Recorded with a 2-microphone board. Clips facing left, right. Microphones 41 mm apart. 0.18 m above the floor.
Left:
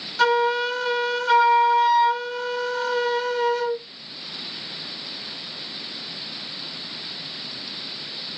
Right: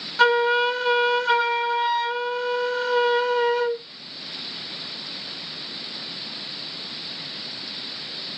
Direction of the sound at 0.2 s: 15° right (ahead or behind).